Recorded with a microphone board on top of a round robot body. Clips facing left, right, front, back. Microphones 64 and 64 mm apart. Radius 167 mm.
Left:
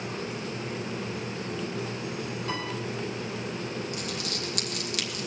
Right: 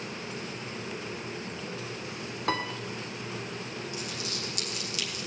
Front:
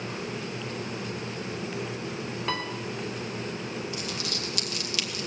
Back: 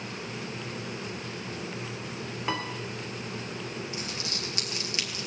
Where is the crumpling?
115° left, 2.5 m.